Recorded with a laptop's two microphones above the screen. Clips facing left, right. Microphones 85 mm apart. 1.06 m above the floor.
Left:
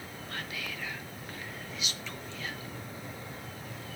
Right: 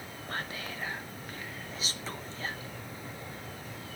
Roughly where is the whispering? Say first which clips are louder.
Right 2 dB; right.